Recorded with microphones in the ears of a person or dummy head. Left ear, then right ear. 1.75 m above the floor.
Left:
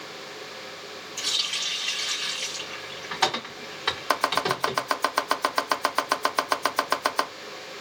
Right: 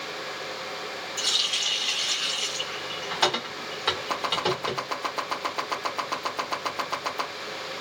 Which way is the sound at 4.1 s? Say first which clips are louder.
Left 2 dB; 55° left (ahead or behind).